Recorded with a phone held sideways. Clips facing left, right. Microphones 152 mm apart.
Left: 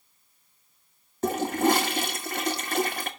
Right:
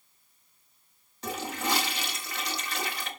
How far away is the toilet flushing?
About 1.1 m.